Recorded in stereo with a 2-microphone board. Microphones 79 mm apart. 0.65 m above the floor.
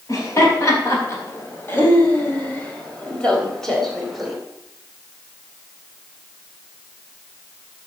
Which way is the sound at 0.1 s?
40° left (ahead or behind).